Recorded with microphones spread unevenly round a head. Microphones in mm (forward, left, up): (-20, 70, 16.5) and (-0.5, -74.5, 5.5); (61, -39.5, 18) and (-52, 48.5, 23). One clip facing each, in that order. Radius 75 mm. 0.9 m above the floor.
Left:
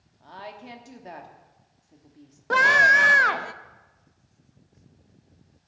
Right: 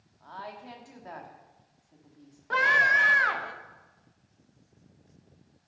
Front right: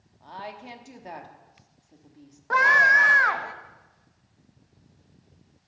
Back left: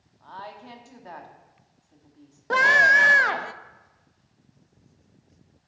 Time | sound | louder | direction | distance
0.2 | a woman speaking | left 1 dB, front right 2 dB | 30° left | 1.3 m
2.5 | a scream | left 6 dB, back left 1 dB | 95° left | 0.7 m